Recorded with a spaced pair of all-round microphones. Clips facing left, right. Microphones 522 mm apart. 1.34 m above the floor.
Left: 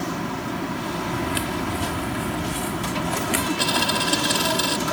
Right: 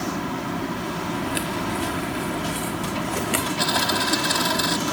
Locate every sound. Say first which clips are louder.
1.1 s footsteps: left 1 dB; 25° left (ahead or behind); by 3.5 s 10° left (ahead or behind)
3.6 s a dropped coin: even; 50° left (ahead or behind)